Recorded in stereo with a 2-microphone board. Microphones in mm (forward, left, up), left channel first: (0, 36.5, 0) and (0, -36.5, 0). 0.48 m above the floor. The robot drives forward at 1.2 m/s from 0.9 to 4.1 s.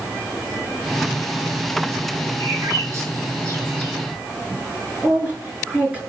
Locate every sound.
2.4 s a bird: 45° right (ahead or behind), 5.5 m; by 3.9 s 35° right (ahead or behind), 7 m
5.0 s a woman speaking: 15° right (ahead or behind), 6 m